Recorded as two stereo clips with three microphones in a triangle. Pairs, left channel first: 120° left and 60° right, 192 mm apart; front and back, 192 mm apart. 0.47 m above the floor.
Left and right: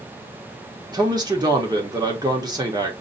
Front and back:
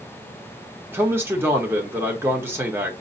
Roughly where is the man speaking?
Right.